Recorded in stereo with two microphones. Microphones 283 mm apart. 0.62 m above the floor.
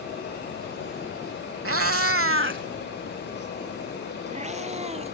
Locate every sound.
1.6 s a cat meowing: 50° right (ahead or behind); by 5.1 s 20° right (ahead or behind)